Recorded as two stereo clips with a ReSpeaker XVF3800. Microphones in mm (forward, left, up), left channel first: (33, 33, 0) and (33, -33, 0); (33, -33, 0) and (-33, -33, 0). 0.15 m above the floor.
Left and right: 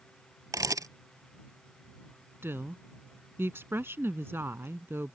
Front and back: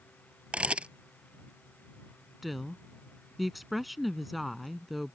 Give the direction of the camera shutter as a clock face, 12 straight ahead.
4 o'clock.